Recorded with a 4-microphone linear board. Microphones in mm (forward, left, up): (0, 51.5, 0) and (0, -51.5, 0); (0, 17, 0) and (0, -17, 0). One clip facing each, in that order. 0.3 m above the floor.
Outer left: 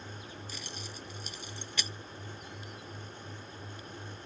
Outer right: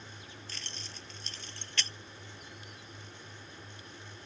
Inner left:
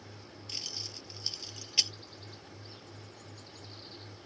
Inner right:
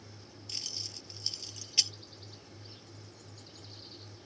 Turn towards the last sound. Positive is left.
turn(degrees=10)  # may be behind; listen again after turning